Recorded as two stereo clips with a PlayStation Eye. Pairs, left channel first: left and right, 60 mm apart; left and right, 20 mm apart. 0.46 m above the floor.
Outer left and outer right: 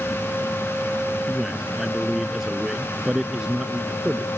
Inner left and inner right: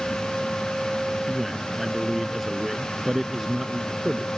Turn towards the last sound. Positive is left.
turn(degrees=-15)  # may be behind; listen again after turning